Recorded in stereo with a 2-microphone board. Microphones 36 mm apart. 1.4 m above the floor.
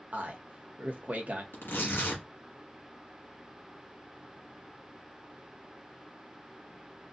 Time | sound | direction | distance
0.1 | a man speaking | 50° right (ahead or behind) | 0.9 m
1.5 | tearing paper | 80° left | 1.6 m